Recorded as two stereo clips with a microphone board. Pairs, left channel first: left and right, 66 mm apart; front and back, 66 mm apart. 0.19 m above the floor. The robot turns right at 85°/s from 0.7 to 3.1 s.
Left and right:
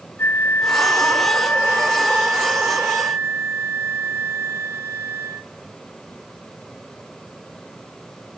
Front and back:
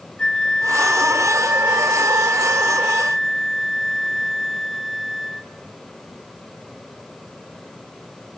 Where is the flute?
65° left, 0.7 m; by 5.5 s 90° right, 0.7 m.